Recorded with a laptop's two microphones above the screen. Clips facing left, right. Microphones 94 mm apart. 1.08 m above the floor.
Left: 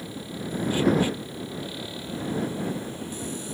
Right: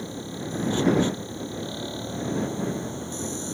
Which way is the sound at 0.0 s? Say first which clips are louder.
Right 1 dB; 25° right (ahead or behind).